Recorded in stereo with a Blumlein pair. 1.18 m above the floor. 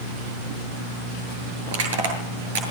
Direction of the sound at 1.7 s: 60° right.